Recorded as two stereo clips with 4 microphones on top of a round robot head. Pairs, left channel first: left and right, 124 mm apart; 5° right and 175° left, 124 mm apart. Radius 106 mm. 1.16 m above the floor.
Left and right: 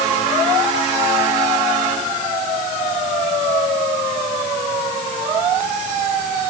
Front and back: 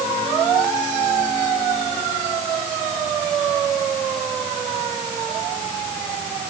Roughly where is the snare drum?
I don't hear a snare drum.